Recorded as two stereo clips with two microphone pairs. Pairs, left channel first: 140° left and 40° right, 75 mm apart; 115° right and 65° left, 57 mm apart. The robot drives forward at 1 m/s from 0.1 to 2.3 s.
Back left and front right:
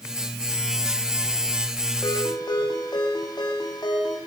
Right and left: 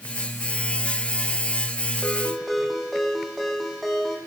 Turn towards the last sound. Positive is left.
turn(degrees=155)